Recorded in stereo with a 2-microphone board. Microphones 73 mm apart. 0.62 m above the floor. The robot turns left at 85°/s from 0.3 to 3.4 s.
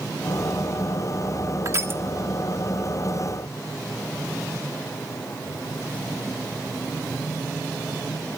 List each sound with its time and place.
1.6 s crushing: 40° right (ahead or behind), 1.3 m; by 2.0 s 30° right (ahead or behind), 1.3 m